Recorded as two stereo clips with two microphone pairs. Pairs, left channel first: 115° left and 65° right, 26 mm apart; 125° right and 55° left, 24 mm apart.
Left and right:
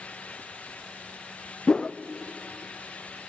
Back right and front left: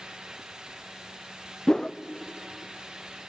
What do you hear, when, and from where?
1.7 s a whoosh: 170° left, 0.5 m